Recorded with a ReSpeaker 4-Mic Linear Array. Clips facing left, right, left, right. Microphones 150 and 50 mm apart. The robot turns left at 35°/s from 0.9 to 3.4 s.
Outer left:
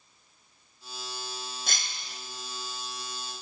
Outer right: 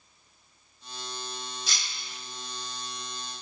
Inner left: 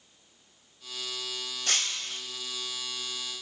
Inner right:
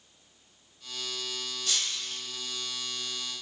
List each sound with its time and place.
1.7 s breaking glass: 55° left (ahead or behind), 0.6 m; by 2.2 s 35° left (ahead or behind), 0.6 m